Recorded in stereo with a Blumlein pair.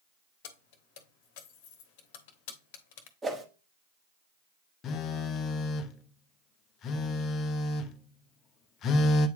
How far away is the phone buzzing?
About 0.7 m.